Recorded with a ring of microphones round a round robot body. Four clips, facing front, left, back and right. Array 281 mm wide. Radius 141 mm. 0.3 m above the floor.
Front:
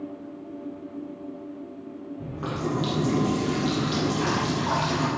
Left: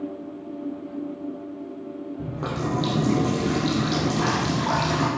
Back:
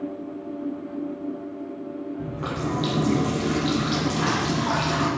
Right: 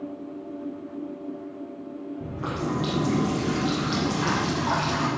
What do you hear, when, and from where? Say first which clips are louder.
2.2 s a running tap: left 1 dB, front 1 dB; 110° left, 7 m